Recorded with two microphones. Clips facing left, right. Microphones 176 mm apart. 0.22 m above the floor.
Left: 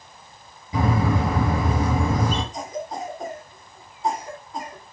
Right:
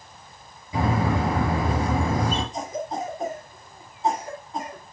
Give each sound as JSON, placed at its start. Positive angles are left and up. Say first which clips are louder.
{"t": 0.7, "sound": "a bird", "louder": "left 1 dB", "side_deg": 25, "distance_m": 4.5}
{"t": 2.5, "sound": "a cough", "louder": "right 1 dB", "side_deg": -25, "distance_m": 1.9}